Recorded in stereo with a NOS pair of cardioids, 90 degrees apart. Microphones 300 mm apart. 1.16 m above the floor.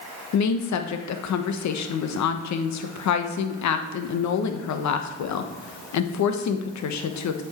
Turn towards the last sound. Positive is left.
turn(degrees=60)